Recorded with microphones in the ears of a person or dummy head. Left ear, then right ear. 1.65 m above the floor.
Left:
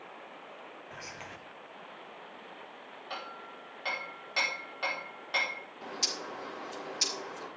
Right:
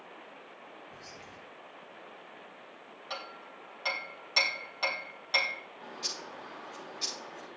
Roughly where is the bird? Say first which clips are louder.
Left 6 dB; left.